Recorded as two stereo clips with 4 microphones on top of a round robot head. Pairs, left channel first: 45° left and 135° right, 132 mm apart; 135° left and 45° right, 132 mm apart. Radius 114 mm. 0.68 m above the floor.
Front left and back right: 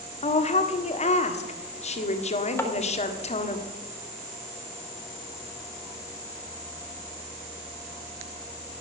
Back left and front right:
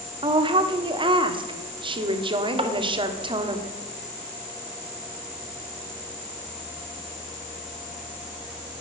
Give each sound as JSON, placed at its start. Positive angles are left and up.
{"t": 0.2, "sound": "a woman speaking", "azimuth_deg": 10, "distance_m": 1.4}
{"t": 2.6, "sound": "tapping", "azimuth_deg": -20, "distance_m": 1.5}